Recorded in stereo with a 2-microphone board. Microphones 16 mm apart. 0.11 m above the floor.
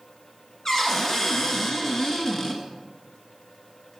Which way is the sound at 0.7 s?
30° left (ahead or behind).